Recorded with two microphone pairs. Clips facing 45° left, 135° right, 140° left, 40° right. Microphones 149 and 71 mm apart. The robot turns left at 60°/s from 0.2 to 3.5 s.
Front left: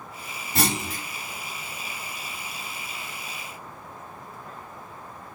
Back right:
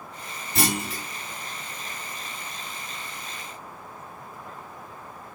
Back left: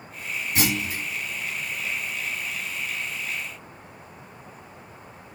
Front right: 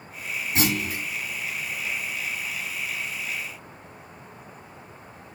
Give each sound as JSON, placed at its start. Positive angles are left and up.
{"t": 0.6, "sound": "a clunk", "azimuth_deg": 15, "distance_m": 1.6}